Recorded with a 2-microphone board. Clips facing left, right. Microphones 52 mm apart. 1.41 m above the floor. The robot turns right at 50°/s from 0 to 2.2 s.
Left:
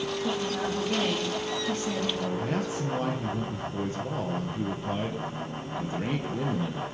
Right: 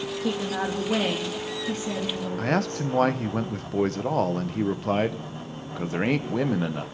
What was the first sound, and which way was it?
A woman speaking, 95° right.